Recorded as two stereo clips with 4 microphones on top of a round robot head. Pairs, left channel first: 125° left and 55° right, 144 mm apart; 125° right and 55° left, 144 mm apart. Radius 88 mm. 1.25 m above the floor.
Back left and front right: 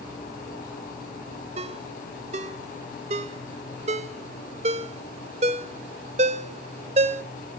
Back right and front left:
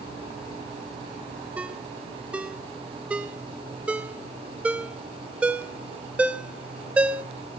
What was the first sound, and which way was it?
A ringtone, 25° right.